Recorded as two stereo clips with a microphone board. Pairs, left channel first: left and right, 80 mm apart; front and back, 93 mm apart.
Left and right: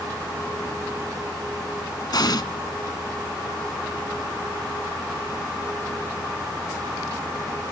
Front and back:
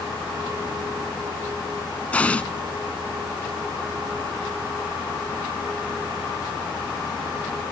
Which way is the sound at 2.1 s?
75° left.